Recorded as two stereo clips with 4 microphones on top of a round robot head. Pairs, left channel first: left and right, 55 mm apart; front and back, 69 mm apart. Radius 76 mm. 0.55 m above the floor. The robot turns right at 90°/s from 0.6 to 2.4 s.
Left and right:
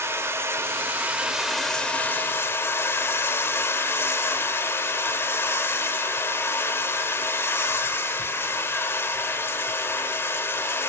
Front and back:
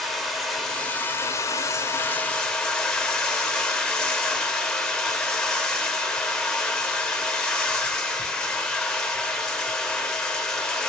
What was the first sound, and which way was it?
Running water, 80° right.